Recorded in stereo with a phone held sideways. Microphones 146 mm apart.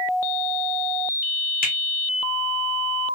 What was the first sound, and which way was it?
A finger snap, 75° left (ahead or behind).